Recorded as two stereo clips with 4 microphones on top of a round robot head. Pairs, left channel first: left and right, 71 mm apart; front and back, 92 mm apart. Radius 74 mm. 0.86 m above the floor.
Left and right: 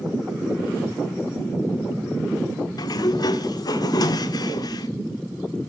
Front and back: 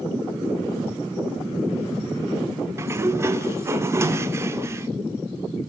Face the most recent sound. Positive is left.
turn(degrees=120)